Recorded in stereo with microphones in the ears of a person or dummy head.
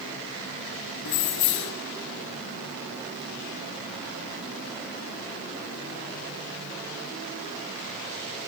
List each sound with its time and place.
1.1 s keys jangling: 50° left (ahead or behind), 0.8 m